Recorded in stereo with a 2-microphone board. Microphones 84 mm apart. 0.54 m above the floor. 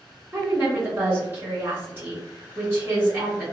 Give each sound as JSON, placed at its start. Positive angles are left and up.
{"t": 0.3, "sound": "a woman speaking", "side_deg": -25, "distance_m": 1.5}